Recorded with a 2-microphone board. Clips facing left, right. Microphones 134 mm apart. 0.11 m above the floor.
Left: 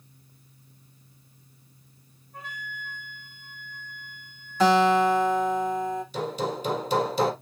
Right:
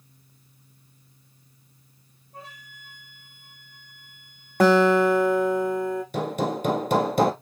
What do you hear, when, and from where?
2.3 s a flute: 30° right (ahead or behind), 2.5 m
4.6 s a guitar: 60° right (ahead or behind), 1.7 m
6.1 s hammering: 55° right (ahead or behind), 1.4 m